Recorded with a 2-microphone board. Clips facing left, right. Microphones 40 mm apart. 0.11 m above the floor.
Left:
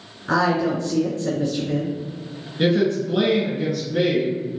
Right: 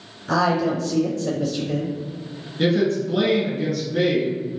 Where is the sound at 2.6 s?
5° left (ahead or behind), 1.3 m.